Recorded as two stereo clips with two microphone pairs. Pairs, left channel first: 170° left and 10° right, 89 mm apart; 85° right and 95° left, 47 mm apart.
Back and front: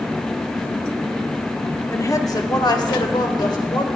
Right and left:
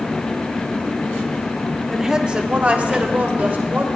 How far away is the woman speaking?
About 0.7 m.